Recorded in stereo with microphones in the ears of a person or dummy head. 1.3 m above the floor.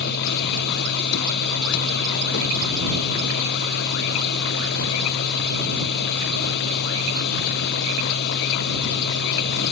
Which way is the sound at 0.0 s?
55° left (ahead or behind).